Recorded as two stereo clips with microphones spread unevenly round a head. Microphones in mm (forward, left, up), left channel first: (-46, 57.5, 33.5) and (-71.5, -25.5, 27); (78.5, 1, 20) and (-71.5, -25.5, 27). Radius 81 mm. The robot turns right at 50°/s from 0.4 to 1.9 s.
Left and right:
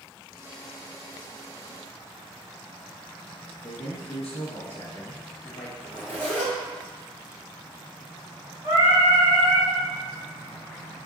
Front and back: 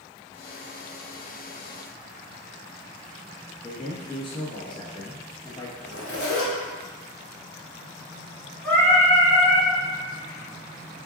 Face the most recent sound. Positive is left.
turn(degrees=-65)